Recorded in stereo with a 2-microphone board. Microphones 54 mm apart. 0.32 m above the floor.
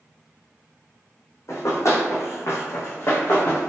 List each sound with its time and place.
1.5 s running footsteps: 60° left (ahead or behind), 0.8 m; by 3.7 s 30° left (ahead or behind), 1.1 m